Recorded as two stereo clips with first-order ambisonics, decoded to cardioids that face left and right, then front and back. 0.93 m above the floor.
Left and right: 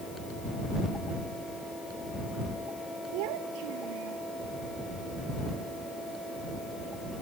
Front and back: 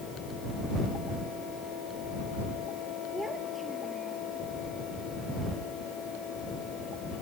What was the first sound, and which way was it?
A child speaking, 90° right.